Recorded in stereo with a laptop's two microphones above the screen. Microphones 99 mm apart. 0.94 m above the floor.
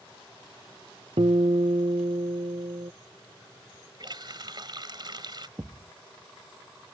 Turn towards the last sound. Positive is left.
turn(degrees=-30)  # may be behind; listen again after turning